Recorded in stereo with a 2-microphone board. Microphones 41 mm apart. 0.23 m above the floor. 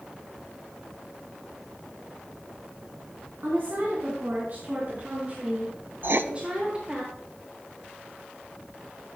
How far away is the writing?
About 0.5 m.